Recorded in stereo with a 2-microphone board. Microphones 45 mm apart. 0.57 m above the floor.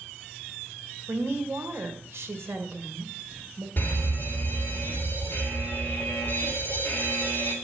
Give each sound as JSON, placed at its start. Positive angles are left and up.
{"t": 1.1, "sound": "a woman speaking", "side_deg": -70, "distance_m": 1.8}
{"t": 3.8, "sound": "a fire alarm", "side_deg": 40, "distance_m": 3.0}